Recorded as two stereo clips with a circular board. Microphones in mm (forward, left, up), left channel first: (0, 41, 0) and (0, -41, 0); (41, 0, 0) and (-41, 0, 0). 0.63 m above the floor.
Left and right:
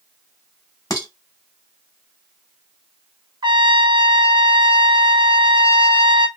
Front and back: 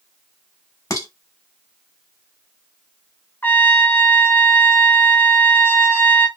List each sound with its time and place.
0.9 s dishes clattering: 50° left, 0.7 m
3.4 s a trumpet: 70° right, 0.6 m